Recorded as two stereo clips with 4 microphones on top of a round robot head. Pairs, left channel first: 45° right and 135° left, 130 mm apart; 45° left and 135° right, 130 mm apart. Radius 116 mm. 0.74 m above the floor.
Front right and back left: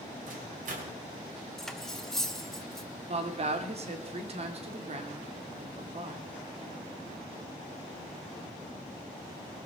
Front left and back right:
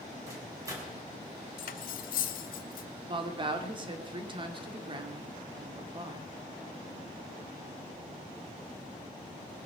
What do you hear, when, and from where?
0.3 s a microwave: 155° left, 4 m
1.6 s cutlery clinking: 45° left, 0.9 m
3.1 s a woman speaking: 175° left, 2 m